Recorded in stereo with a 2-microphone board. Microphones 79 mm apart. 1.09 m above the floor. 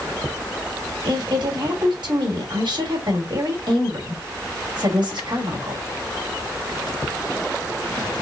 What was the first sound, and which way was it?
A woman speaking, 70° right (ahead or behind).